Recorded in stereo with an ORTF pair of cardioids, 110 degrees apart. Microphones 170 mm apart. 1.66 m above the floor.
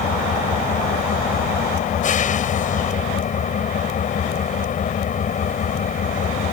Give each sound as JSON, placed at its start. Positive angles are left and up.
{"t": 0.0, "sound": "an engine running", "azimuth_deg": 50}